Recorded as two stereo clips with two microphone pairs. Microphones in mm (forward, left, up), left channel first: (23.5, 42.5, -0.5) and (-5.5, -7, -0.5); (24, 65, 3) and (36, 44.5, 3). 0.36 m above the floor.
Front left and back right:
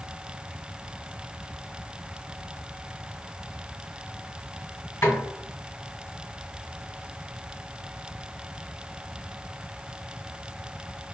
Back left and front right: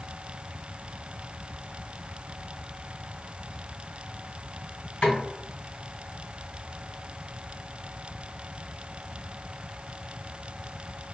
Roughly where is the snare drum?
Left.